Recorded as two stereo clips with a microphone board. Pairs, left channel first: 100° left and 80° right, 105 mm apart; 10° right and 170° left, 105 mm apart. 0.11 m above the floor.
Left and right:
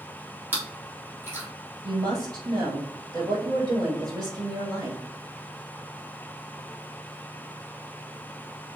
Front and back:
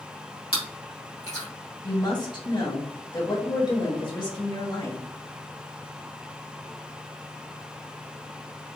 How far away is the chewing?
About 2.5 m.